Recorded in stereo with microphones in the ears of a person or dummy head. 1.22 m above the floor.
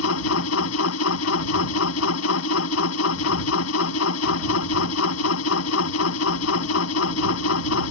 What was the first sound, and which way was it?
A machine running, 80° left.